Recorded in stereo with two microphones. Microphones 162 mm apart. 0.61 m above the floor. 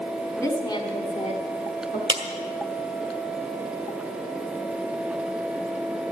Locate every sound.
0.4 s a woman speaking: 15° left (ahead or behind), 1.6 m; by 2.0 s 60° left (ahead or behind), 1.7 m
2.1 s a clap: 30° right (ahead or behind), 1.8 m